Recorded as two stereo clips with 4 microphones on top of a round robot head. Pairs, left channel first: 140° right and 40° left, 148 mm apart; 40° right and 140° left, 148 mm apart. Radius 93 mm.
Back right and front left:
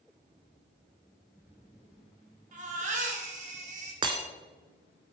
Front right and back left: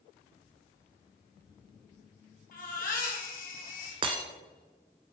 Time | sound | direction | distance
2.5 | a baby crying | straight ahead | 3.5 m
4.0 | breaking glass | 90° left | 1.3 m